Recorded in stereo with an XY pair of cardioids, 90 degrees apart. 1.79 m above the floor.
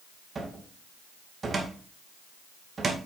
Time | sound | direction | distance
0.3 | a cupboard door | 40° right | 2 m